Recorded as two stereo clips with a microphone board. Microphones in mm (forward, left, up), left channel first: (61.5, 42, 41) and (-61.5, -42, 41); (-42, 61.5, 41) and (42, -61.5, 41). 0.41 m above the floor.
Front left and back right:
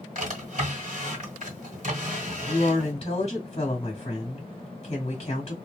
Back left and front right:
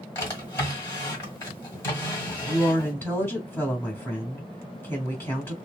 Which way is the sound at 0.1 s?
165° right.